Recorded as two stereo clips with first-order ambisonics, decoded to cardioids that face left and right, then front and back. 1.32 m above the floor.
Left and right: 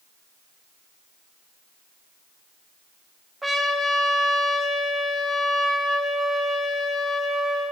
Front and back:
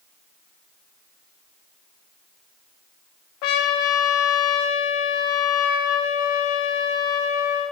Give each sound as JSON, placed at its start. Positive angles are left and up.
{"t": 3.4, "sound": "a trumpet", "azimuth_deg": -5, "distance_m": 0.5}